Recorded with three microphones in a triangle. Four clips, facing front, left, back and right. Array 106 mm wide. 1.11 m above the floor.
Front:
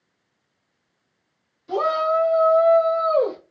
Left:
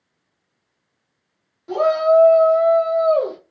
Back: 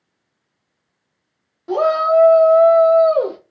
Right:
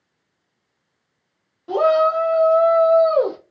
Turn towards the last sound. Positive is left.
turn(degrees=-130)